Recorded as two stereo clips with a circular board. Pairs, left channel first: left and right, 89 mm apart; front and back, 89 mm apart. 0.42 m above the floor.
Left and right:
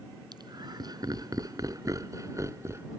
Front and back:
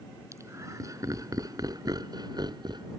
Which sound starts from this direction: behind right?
Laughter, at 0.3 s.